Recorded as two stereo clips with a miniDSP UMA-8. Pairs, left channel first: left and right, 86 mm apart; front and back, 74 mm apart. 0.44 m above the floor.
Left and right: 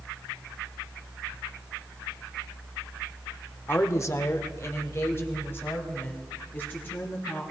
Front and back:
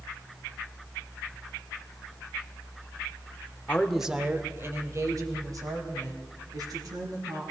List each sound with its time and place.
3.7 s a woman speaking: 50° left, 1.0 m; by 7.4 s 155° left, 5 m